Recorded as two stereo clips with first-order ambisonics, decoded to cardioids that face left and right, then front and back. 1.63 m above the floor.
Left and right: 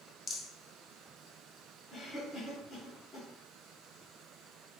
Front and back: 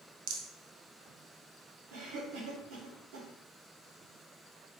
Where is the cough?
165° right, 1.9 m.